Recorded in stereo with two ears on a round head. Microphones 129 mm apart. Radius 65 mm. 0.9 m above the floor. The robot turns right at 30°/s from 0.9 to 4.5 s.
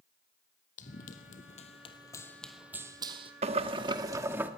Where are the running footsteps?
55° left (ahead or behind), 1.8 m; by 3.3 s 40° right (ahead or behind), 1.9 m.